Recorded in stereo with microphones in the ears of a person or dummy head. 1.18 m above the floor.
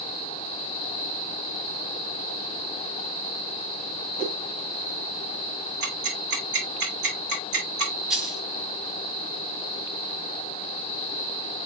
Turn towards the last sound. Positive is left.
turn(degrees=-5)  # may be behind; listen again after turning